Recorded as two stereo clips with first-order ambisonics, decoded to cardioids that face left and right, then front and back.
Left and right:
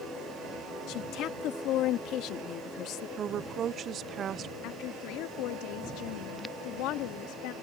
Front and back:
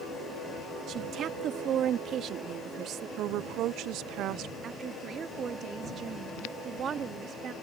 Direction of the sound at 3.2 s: 145° right.